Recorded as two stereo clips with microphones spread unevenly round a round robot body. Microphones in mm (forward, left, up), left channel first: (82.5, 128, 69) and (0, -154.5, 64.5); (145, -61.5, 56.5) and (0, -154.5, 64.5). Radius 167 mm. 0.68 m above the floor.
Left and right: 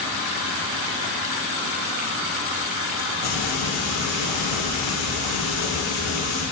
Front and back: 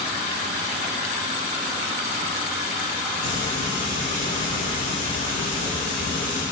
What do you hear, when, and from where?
3.2 s frying: 75° left, 3.5 m